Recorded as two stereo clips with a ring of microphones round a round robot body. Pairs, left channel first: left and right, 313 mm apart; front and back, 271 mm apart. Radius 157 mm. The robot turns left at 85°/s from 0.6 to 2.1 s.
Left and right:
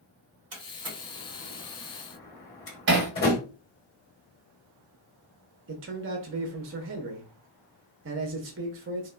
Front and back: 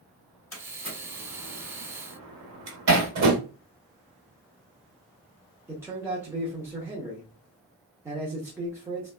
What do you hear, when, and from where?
0.5 s a door slam: 80° right, 1.4 m; by 3.4 s 150° left, 1.4 m
2.9 s hammering: 145° right, 1.1 m
5.7 s a man speaking: 105° right, 0.5 m